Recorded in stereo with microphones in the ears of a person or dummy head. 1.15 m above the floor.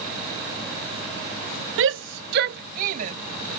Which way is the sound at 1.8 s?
65° right (ahead or behind).